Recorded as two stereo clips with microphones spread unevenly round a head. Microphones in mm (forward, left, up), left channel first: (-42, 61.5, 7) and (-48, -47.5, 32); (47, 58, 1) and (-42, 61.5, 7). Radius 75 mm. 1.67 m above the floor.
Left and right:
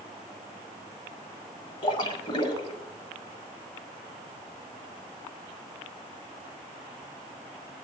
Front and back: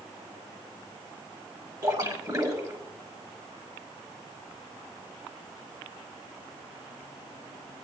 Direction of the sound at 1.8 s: 130° left.